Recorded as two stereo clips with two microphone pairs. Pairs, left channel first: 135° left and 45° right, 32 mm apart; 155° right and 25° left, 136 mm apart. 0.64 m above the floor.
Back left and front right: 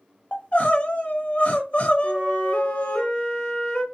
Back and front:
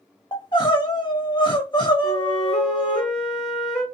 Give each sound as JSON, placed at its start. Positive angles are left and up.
{"t": 0.3, "sound": "crying", "azimuth_deg": 155, "distance_m": 0.5}
{"t": 2.0, "sound": "a flute", "azimuth_deg": 160, "distance_m": 1.5}